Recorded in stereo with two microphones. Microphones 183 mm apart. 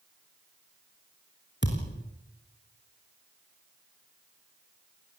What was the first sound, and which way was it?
A thud, 85° left.